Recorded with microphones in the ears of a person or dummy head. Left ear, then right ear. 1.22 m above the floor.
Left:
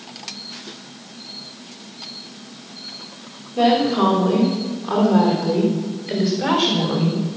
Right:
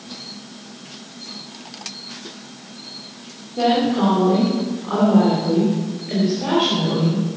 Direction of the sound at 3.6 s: 90° left.